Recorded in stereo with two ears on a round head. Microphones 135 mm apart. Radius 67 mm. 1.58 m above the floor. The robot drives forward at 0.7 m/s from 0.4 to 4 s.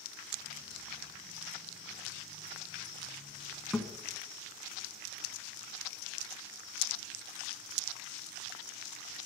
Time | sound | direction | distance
3.7 | a thud | centre (ahead or behind) | 1.7 m